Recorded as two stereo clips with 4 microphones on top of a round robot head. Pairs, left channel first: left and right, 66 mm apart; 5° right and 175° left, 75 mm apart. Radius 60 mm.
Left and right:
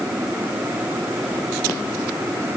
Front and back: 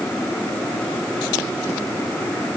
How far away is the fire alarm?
I don't hear a fire alarm.